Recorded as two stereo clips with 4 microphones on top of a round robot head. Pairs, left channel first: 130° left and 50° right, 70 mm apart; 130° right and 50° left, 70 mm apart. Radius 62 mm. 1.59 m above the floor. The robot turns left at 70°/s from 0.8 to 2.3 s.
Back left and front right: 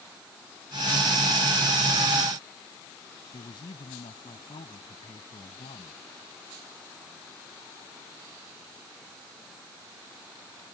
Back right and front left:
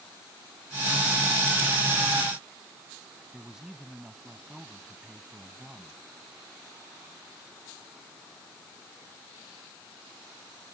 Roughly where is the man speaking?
Behind left.